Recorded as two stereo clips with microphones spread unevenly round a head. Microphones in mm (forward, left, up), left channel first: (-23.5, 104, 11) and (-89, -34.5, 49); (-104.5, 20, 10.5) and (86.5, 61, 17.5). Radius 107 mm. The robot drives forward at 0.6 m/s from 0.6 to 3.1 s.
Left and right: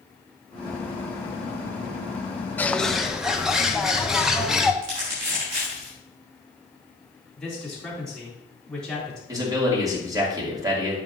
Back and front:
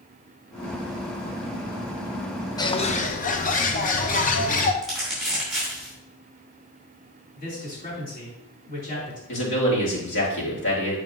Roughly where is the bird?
Behind left.